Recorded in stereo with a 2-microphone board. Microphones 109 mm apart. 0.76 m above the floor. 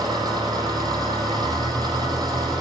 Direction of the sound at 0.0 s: 40° right (ahead or behind).